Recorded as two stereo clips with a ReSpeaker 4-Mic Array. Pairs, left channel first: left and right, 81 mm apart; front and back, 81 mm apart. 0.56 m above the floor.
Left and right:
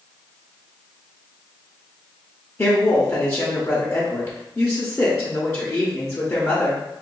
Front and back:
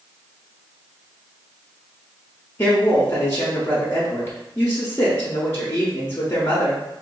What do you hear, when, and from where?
2.6 s a woman speaking: 50° left, 0.9 m